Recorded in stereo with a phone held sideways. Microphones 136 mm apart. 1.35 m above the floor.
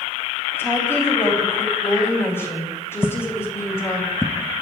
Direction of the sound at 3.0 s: 10° right (ahead or behind).